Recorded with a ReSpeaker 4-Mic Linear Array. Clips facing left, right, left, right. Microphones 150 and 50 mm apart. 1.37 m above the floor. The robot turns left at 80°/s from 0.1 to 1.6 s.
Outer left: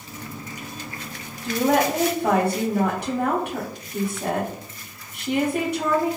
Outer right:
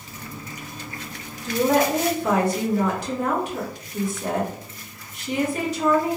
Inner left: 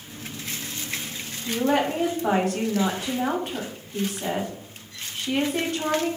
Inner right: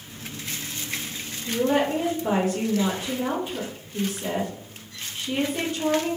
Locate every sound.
1.4 s a woman speaking: 70° left (ahead or behind), 0.9 m